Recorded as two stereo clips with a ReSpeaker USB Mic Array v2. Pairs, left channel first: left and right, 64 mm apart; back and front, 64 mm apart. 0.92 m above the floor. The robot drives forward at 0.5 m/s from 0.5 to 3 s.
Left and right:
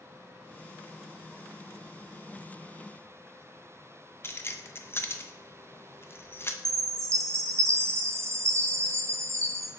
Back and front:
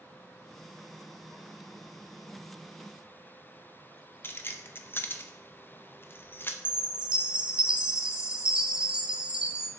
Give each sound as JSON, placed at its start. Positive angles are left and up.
{"t": 4.2, "sound": "keys jangling", "azimuth_deg": 135, "distance_m": 0.5}
{"t": 6.7, "sound": "a chime", "azimuth_deg": -70, "distance_m": 0.6}